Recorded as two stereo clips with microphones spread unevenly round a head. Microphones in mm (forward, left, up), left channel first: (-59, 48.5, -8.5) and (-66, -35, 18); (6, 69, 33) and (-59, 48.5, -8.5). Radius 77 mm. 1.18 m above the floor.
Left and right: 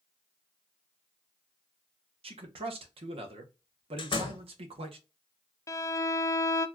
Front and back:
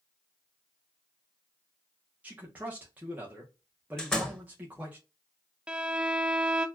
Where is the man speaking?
105° right, 1.0 m.